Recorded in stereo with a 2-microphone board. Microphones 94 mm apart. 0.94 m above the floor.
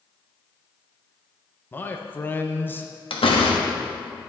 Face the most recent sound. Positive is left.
turn(degrees=70)  # may be behind; listen again after turning